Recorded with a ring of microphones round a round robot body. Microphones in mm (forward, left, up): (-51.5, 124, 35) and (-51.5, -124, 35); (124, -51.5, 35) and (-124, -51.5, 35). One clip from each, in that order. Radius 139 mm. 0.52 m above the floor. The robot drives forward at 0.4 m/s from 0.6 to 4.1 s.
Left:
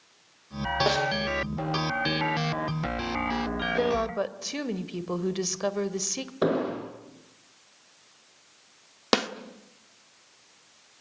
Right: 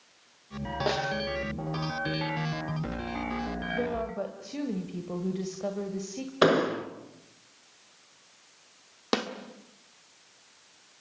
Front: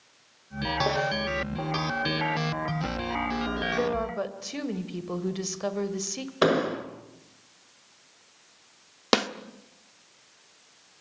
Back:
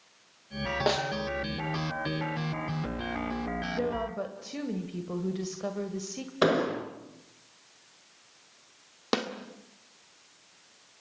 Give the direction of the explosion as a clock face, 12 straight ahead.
3 o'clock.